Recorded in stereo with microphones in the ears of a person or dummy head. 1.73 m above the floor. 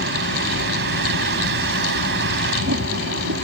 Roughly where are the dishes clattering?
No dishes clattering in this recording.